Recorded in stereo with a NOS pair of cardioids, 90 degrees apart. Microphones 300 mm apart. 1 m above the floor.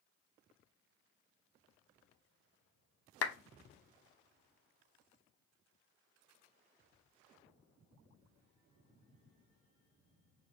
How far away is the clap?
About 0.7 m.